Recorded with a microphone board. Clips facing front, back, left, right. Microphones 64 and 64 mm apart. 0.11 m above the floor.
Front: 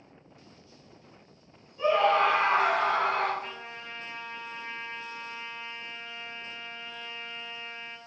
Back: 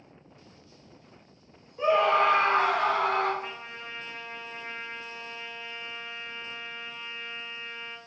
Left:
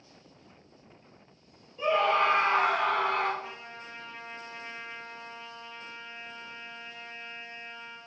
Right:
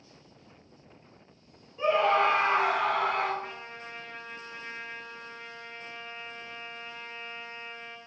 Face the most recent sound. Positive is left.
turn(degrees=-105)